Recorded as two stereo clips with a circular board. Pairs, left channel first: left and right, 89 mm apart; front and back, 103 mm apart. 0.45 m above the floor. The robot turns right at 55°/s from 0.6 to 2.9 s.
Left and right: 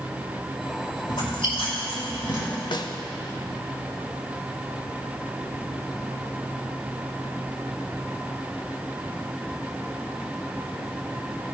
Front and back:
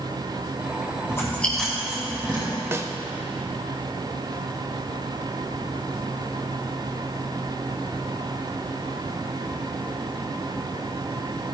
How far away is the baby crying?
I don't hear a baby crying.